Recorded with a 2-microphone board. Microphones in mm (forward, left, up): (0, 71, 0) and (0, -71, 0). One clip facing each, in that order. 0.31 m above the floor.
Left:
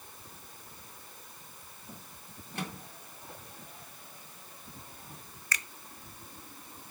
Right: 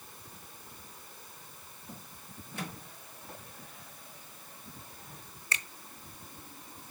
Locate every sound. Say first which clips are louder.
2.5 s a microwave: left 2 dB; 70° left (ahead or behind), 2.5 m
5.5 s a finger snap: even; 25° right (ahead or behind), 0.9 m